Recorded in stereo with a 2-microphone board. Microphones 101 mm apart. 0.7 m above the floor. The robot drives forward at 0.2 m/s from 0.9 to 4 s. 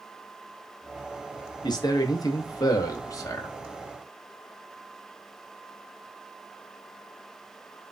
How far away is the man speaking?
About 0.8 m.